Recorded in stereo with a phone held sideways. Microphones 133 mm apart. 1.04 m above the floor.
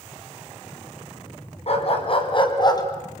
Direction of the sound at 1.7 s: 50° left (ahead or behind).